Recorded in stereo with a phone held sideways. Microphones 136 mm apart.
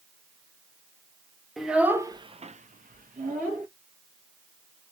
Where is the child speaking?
Centre (ahead or behind), 0.6 m; by 3.7 s 75° right (ahead or behind), 0.9 m.